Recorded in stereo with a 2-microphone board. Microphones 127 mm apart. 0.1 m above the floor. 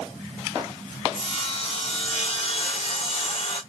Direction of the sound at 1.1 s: 45° left (ahead or behind).